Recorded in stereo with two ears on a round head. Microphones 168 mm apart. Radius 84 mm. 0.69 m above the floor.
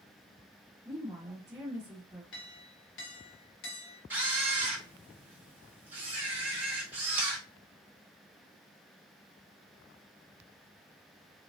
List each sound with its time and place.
0.8 s a woman speaking: 15° right (ahead or behind), 1.7 m
2.3 s a clink: 65° left (ahead or behind), 0.9 m
4.1 s a camera shutter: 10° right (ahead or behind), 0.8 m